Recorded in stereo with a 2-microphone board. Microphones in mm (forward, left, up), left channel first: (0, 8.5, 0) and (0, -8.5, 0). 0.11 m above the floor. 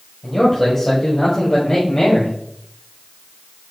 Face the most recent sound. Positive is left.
turn(degrees=30)  # may be behind; listen again after turning